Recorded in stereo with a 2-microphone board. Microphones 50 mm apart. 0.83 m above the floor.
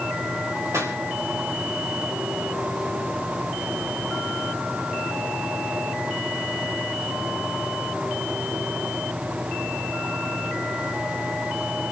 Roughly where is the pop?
Right.